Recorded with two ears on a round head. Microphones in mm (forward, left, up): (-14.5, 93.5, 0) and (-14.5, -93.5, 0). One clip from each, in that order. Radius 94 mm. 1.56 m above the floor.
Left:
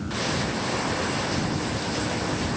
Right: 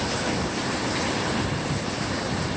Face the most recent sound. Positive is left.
No sound to turn to.